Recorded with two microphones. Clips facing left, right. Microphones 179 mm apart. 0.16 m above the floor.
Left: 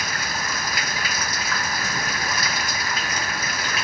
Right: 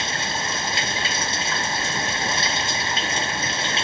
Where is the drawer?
I don't hear a drawer.